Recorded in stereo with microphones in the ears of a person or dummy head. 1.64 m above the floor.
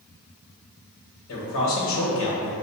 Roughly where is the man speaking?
Left.